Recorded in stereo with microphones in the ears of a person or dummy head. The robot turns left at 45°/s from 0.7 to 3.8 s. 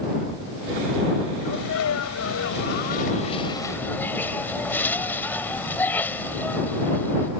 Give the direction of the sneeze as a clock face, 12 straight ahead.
8 o'clock.